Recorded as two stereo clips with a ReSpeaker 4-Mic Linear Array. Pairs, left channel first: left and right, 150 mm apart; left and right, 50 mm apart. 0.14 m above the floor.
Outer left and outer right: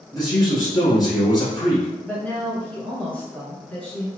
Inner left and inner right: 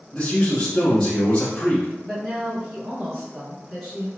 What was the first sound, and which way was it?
A man speaking, 30° left (ahead or behind).